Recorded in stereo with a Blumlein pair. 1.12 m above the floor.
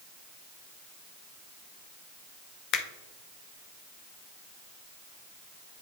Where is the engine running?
No engine running in this recording.